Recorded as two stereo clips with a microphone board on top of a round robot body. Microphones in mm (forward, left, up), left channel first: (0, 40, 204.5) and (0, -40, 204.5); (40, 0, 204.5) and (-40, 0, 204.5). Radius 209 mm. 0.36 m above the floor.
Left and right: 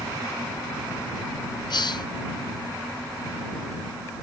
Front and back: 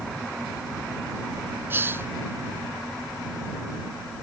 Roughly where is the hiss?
Behind left.